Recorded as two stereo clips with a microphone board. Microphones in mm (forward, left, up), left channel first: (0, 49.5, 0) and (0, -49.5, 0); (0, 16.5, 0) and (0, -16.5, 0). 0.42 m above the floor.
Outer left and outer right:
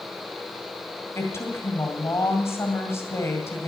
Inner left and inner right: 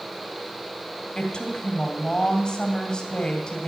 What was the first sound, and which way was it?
A woman speaking, 30° left (ahead or behind).